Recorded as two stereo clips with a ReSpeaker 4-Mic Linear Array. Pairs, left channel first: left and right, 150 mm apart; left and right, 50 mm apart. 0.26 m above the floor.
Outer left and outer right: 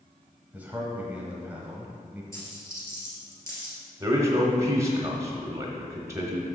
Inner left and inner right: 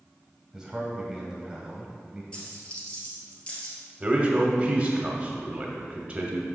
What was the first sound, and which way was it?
A man speaking, 10° right (ahead or behind).